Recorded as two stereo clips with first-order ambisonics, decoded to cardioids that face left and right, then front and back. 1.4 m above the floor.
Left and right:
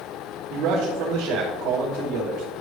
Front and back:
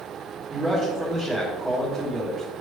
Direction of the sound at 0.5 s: 95° right.